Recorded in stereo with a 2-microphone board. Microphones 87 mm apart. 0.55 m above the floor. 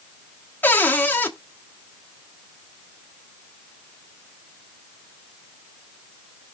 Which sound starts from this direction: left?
A cupboard door, at 0.6 s.